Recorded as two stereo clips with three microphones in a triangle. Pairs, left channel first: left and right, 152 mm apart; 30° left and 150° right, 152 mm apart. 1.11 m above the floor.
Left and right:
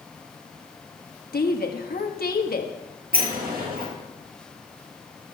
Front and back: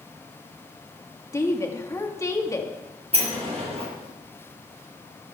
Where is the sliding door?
100° right, 4 m.